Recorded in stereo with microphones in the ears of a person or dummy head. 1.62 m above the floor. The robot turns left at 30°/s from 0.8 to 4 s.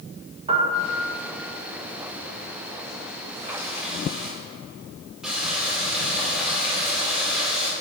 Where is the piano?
30° right (ahead or behind), 1.1 m; by 1.1 s 20° right (ahead or behind), 1.1 m.